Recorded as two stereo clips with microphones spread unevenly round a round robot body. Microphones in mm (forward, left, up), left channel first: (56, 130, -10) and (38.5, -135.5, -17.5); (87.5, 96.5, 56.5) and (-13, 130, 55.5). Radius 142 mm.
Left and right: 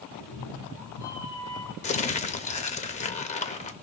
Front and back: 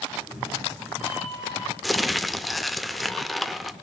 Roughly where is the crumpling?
Left.